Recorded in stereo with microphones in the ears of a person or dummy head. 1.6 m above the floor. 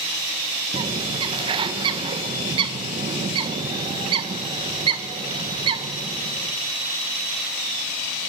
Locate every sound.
0.7 s a bird: 30° right (ahead or behind), 1.6 m